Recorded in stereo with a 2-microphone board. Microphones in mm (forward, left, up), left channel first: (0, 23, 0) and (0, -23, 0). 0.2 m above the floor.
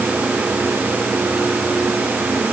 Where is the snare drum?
No snare drum in this recording.